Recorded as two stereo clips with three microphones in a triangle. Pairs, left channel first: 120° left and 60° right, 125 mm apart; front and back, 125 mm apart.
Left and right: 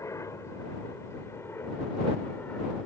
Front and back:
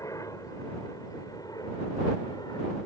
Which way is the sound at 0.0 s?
60° left.